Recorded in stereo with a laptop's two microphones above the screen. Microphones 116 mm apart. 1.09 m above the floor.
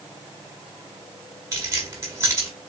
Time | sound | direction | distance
1.5 | keys jangling | 25° right (ahead or behind) | 2.5 m